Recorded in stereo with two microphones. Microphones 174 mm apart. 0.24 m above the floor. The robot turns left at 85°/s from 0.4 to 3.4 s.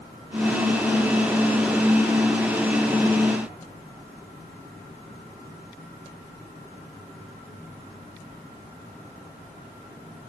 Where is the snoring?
I don't hear snoring.